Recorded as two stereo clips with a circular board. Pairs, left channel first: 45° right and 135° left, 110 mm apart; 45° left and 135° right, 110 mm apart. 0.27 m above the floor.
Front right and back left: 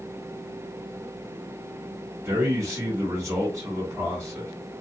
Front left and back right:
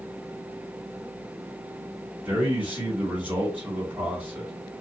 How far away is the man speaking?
About 1.5 m.